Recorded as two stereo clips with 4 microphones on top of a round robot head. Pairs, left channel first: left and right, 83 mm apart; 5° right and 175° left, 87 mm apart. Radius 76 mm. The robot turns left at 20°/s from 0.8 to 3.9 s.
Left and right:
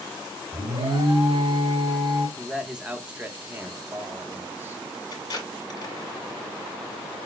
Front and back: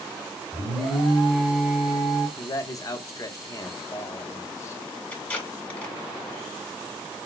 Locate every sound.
0.5 s an alarm: 95° right, 1.6 m; by 2.3 s 125° right, 1.6 m
2.4 s a man speaking: 10° right, 0.9 m; by 4.8 s 40° right, 0.9 m
5.1 s tape being pulled: 65° left, 1.7 m